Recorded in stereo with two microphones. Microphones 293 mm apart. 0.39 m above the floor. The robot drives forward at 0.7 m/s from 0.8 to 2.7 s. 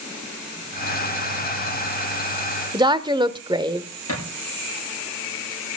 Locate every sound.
2.7 s a woman speaking: 15° right (ahead or behind), 0.8 m
4.1 s a thud: 55° left (ahead or behind), 9 m